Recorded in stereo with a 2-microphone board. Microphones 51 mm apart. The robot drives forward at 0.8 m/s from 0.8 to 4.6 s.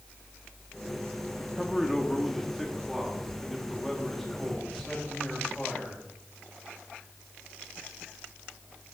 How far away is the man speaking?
About 1.1 m.